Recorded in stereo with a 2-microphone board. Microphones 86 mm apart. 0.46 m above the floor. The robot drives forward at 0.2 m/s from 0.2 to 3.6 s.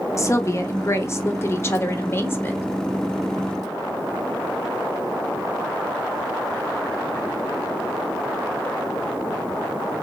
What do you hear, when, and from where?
0.2 s a woman speaking: 35° left (ahead or behind), 1.0 m; by 2.7 s 25° left (ahead or behind), 1.2 m